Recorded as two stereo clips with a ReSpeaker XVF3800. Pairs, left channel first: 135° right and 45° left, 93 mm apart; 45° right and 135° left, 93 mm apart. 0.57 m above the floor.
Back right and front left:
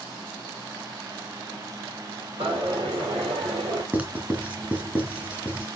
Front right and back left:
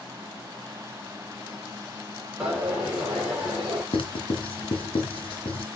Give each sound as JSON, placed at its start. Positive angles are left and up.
{"t": 2.4, "sound": "a dropped coin", "azimuth_deg": 50, "distance_m": 5.0}
{"t": 3.9, "sound": "writing", "azimuth_deg": -25, "distance_m": 2.0}